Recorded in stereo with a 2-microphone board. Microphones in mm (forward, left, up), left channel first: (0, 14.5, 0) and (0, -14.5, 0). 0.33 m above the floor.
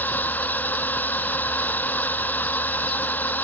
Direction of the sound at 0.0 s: 75° left (ahead or behind).